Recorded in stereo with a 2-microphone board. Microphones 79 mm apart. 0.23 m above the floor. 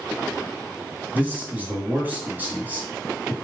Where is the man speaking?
20° right (ahead or behind), 1.3 m.